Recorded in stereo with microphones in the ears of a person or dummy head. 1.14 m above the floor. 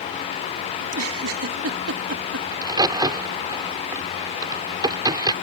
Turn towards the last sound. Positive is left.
turn(degrees=-20)  # may be behind; listen again after turning